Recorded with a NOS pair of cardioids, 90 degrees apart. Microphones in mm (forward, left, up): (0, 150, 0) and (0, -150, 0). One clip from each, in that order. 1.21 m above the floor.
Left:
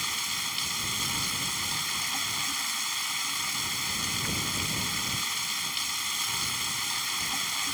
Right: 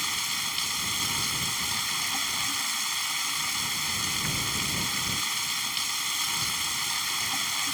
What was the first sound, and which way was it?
Running water, 15° right.